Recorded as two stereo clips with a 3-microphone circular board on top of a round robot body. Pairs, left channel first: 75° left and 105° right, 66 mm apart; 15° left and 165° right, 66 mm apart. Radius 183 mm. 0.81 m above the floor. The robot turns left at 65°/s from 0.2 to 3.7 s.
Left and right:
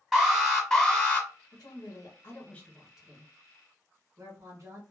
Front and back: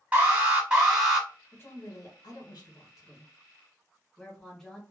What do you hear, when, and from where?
0.1 s an alarm: 175° left, 1.5 m; by 1.3 s 105° left, 1.5 m
1.5 s a woman speaking: 70° left, 1.2 m; by 4.8 s 70° right, 1.2 m